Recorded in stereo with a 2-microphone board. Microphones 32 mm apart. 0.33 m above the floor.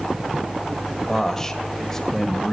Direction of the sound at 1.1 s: 15° left (ahead or behind).